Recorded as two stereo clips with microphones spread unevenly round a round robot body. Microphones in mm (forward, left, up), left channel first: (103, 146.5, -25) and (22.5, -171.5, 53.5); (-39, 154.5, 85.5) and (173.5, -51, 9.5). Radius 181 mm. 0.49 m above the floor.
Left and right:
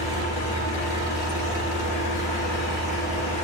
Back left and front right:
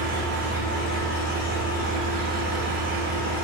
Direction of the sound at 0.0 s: 10° left.